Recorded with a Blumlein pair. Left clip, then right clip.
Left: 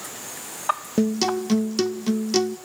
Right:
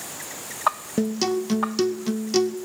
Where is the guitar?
5° left, 0.9 m.